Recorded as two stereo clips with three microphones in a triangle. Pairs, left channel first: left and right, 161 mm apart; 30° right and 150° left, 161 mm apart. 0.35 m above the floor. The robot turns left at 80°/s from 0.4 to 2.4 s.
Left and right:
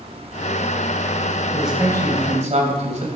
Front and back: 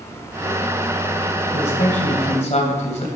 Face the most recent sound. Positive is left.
turn(degrees=-60)